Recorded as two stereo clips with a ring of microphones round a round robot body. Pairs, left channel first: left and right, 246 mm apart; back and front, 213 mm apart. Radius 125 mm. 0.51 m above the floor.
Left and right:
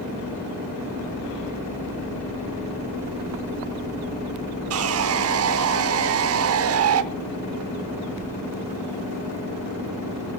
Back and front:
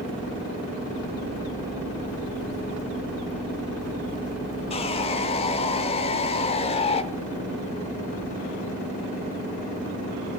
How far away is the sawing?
About 0.8 m.